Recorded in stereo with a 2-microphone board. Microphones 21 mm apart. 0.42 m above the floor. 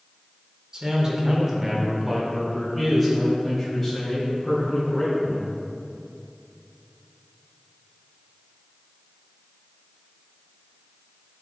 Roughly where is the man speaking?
Right.